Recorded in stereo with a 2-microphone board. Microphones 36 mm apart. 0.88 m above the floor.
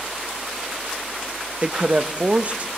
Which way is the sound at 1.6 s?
35° right (ahead or behind).